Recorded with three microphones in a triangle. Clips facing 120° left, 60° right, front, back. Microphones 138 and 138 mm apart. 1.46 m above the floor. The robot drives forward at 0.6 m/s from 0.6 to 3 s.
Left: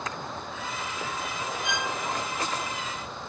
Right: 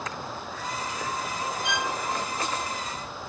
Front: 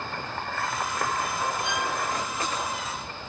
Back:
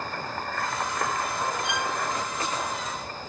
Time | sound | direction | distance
1.6 | a violin | 125° right | 8.5 m